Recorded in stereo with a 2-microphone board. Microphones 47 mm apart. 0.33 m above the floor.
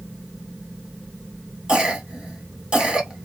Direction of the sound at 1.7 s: 20° right (ahead or behind).